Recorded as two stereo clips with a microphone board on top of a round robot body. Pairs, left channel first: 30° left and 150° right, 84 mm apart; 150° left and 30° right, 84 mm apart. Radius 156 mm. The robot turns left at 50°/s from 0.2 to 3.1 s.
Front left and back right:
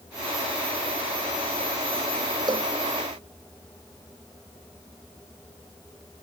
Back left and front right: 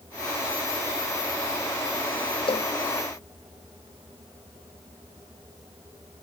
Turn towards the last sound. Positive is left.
turn(degrees=135)